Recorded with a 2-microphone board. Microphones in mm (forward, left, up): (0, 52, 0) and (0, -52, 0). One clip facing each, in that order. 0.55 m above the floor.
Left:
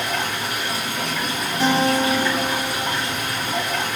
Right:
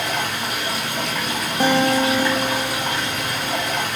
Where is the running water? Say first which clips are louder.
Right 1 dB; 70° right (ahead or behind), 1.5 m.